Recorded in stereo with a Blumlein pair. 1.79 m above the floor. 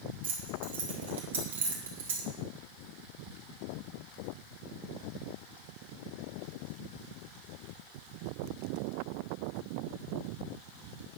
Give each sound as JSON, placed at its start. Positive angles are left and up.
{"t": 0.2, "sound": "keys jangling", "azimuth_deg": -60, "distance_m": 2.0}